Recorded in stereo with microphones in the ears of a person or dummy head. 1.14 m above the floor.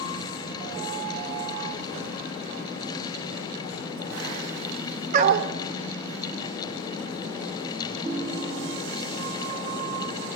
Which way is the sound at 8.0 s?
25° right (ahead or behind).